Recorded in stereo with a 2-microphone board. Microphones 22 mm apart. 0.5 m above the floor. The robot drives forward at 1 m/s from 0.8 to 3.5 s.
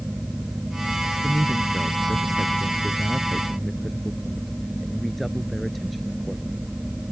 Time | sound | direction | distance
1.2 | a man speaking | 5° left (ahead or behind) | ?